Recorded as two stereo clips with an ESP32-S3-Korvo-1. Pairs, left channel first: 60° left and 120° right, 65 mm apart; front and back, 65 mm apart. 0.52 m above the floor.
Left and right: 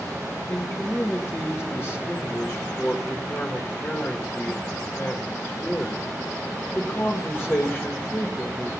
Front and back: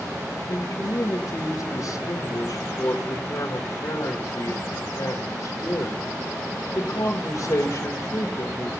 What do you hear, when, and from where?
0.5 s a man speaking: 5° left, 1.9 m